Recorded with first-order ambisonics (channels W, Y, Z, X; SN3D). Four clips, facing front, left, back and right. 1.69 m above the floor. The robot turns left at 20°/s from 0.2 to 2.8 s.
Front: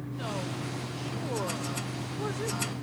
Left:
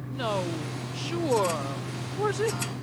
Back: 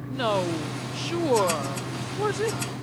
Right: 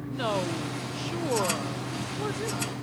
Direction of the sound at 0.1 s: 175° right.